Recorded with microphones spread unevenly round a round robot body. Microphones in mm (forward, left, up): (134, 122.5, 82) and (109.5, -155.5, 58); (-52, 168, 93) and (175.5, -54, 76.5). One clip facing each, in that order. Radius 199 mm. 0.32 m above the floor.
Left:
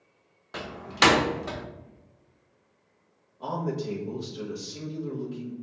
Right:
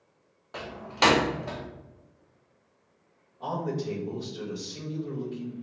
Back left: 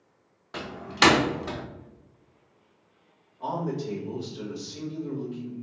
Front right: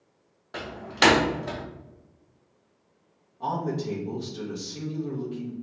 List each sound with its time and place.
0.5 s a door slam: 75° left, 0.6 m
3.4 s a man speaking: 5° left, 1.3 m